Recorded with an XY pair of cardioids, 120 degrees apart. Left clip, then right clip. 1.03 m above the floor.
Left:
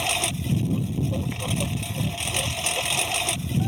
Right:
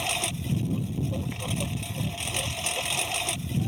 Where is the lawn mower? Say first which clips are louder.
Left 4 dB; 20° left.